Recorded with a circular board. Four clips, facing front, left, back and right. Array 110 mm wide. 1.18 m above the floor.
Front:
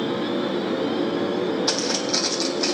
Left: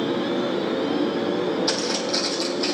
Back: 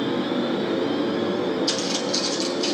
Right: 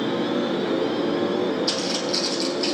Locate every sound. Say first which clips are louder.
1.7 s footsteps: even, front 1 dB; 20° left, 2.0 m; by 2.8 s straight ahead, 2 m